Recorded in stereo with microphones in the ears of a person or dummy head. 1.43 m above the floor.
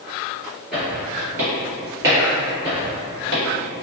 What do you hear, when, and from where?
0.7 s footsteps: 5° right (ahead or behind), 1.4 m; by 3.4 s 35° right (ahead or behind), 2.5 m